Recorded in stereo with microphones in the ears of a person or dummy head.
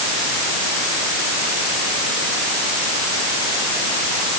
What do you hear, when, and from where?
Only background noise.